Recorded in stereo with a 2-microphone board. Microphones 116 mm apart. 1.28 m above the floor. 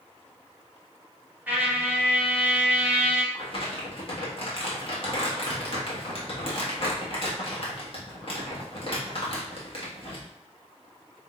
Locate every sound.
1.5 s a trumpet: 15° right (ahead or behind), 1.1 m
3.3 s crumpling: 50° left (ahead or behind), 1.3 m